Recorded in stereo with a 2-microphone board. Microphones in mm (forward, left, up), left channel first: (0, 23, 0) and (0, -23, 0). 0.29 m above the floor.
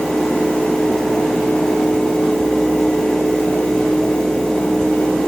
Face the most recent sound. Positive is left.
No sound to turn to.